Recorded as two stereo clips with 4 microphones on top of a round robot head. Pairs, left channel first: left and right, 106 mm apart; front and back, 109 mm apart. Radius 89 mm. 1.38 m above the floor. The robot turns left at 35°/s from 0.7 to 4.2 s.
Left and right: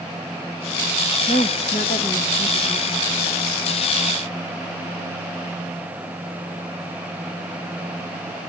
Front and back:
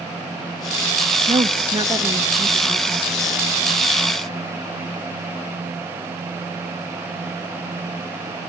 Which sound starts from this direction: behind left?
A woman speaking, at 1.3 s.